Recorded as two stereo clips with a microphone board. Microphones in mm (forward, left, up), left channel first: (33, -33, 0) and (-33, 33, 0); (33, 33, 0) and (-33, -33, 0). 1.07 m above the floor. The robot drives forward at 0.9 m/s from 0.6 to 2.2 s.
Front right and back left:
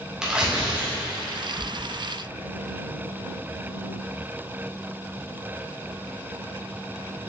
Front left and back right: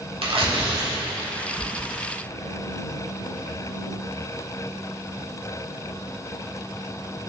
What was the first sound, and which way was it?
Tearing paper, 145° right.